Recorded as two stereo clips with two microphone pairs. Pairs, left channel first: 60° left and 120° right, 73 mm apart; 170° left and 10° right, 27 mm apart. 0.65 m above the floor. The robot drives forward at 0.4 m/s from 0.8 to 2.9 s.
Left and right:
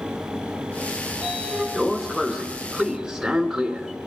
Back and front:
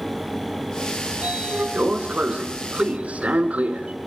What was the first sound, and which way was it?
A sliding door, 30° right.